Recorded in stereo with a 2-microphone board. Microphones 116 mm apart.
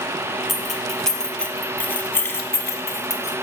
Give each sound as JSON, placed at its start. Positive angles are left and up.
{"t": 0.5, "sound": "keys jangling", "side_deg": 0, "distance_m": 1.3}